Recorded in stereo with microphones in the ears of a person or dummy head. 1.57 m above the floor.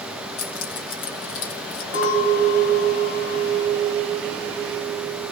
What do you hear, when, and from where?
0.4 s keys jangling: 65° left (ahead or behind), 1.5 m
1.9 s a clink: 70° left (ahead or behind), 1.3 m